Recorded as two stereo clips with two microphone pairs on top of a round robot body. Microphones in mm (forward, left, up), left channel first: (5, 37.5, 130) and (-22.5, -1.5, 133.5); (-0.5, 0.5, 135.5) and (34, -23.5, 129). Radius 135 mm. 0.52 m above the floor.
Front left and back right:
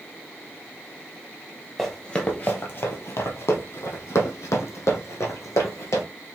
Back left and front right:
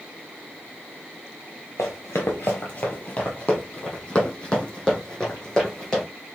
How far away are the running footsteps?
About 0.6 m.